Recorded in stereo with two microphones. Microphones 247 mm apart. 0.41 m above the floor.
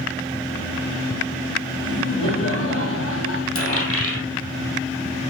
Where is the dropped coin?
60° left (ahead or behind), 2.5 m.